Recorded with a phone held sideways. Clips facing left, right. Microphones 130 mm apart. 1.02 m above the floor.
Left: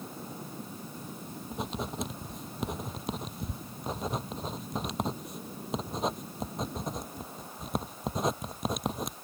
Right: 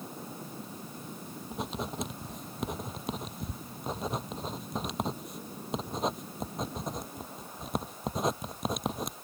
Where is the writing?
Centre (ahead or behind).